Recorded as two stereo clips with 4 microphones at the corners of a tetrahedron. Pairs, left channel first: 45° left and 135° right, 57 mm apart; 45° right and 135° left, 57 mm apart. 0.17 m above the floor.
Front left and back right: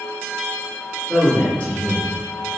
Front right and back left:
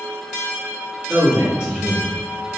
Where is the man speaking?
80° left, 1.7 m.